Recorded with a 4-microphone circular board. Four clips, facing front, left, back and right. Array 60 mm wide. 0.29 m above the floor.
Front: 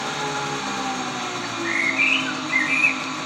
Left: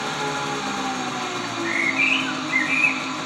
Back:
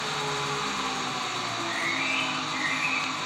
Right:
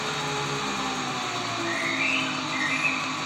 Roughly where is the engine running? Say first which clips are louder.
Left 3 dB, front 4 dB; ahead left.